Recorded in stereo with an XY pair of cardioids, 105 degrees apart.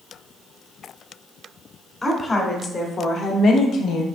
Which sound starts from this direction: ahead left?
A woman speaking, at 2.0 s.